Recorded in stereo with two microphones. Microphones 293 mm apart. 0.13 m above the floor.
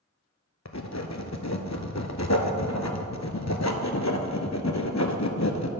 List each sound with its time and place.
0.7 s writing: 65° left (ahead or behind), 0.6 m